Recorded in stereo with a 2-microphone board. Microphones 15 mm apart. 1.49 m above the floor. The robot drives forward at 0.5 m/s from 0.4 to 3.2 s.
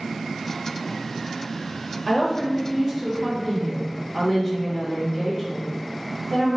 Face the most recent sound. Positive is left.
turn(degrees=-15)  # may be behind; listen again after turning